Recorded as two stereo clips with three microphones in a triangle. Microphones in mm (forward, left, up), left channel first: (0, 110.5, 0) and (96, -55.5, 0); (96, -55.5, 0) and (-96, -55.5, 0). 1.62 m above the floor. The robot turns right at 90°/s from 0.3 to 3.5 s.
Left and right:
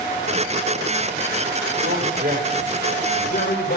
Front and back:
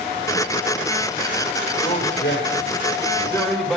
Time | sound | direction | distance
1.8 | a man speaking | 60° right | 5 m